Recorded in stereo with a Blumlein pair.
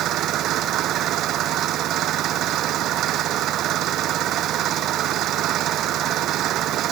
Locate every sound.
0.0 s an engine running: 35° right